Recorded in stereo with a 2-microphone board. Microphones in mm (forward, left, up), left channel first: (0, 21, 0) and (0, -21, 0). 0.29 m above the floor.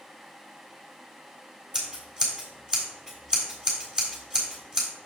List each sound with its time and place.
1.7 s scissors: 20° right (ahead or behind), 3 m